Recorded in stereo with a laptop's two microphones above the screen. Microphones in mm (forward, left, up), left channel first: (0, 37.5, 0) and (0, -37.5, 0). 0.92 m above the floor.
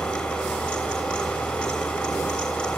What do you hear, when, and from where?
0.0 s a fan: 10° left (ahead or behind), 6 m